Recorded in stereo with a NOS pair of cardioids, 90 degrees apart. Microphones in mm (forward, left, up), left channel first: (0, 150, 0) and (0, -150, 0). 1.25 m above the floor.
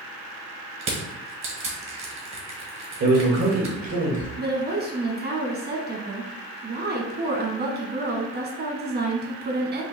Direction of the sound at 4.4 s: 35° right.